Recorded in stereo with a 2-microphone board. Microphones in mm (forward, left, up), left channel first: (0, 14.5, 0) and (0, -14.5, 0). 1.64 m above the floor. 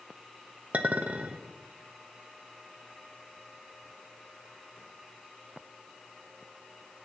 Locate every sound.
0.7 s a clink: 55° right (ahead or behind), 1.2 m